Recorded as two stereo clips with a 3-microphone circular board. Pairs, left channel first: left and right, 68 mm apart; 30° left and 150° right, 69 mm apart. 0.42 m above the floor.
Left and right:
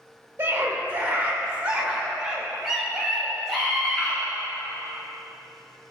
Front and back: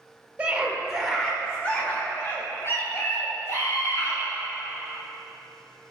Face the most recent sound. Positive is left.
turn(degrees=5)